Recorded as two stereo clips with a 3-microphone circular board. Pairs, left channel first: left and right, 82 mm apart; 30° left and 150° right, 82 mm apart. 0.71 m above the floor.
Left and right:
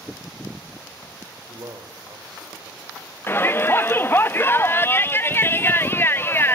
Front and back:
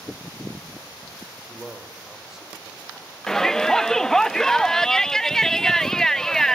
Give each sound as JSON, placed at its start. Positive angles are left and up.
{"t": 1.5, "sound": "a man speaking", "azimuth_deg": -65, "distance_m": 2.5}
{"t": 3.3, "sound": "a shout", "azimuth_deg": 105, "distance_m": 0.6}